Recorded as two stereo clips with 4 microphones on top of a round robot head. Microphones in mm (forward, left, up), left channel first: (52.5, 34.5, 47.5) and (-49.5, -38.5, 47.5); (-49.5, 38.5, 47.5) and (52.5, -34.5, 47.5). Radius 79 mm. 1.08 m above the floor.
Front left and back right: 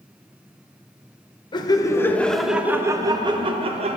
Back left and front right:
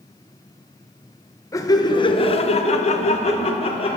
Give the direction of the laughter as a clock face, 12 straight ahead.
9 o'clock.